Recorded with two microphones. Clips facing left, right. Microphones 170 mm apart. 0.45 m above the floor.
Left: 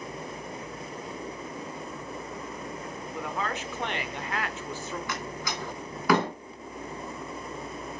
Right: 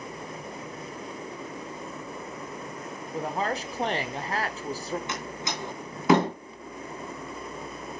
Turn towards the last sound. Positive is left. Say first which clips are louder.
# even
turn(degrees=-25)  # may be behind; listen again after turning